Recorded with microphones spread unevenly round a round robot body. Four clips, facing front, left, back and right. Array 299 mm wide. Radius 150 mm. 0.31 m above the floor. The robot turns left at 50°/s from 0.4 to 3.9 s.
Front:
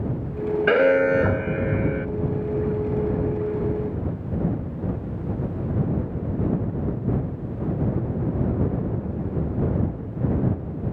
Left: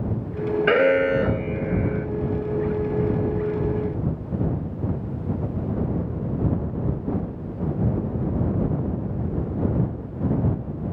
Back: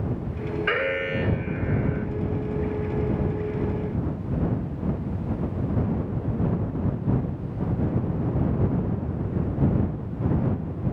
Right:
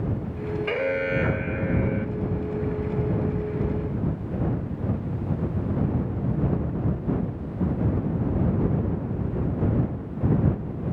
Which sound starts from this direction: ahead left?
An alarm, at 0.7 s.